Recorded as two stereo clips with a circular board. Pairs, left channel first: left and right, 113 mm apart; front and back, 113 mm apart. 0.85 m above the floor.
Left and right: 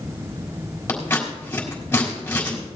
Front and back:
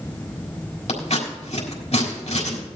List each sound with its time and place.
0.9 s scissors: 20° left, 3.5 m